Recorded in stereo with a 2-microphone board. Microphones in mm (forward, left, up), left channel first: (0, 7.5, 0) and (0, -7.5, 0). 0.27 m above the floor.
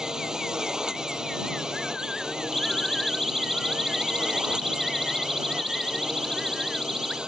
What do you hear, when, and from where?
0.0 s a drone: 45° right (ahead or behind); by 7.3 s 70° right (ahead or behind)
2.5 s a siren: 15° left (ahead or behind); by 7.2 s 25° left (ahead or behind)